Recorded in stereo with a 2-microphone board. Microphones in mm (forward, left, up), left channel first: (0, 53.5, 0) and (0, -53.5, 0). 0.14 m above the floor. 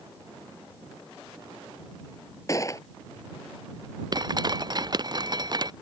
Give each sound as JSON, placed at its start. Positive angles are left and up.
{"t": 2.5, "sound": "a gunshot", "side_deg": 30}
{"t": 4.1, "sound": "dripping", "side_deg": -40}